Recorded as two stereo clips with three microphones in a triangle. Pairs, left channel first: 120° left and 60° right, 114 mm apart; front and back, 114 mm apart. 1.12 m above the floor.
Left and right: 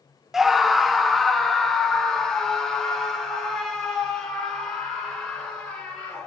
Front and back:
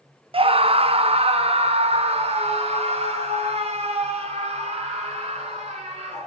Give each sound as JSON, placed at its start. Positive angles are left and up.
{"t": 0.3, "sound": "a scream", "azimuth_deg": -145, "distance_m": 0.7}